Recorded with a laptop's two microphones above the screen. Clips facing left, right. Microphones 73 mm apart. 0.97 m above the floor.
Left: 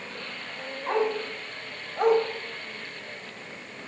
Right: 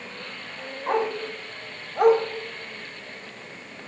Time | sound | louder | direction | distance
0.9 | a dog barking | right 1 dB | 15° right (ahead or behind) | 2 m